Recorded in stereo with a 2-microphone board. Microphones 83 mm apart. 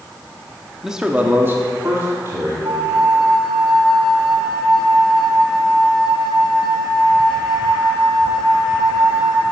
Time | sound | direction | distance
0.8 | a man speaking | 5° right (ahead or behind) | 0.9 m
2.6 | a flute | 75° right (ahead or behind) | 1.4 m